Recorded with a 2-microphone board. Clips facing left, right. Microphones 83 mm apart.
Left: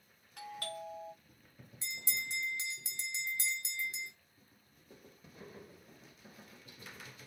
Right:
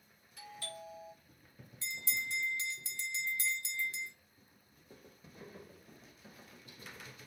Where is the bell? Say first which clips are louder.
Right 2 dB; 20° left (ahead or behind), 0.5 m.